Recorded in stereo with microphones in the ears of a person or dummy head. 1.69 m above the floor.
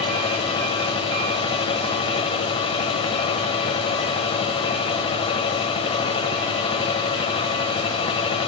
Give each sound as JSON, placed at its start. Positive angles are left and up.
{"t": 0.0, "sound": "a machine running", "side_deg": 35, "distance_m": 1.5}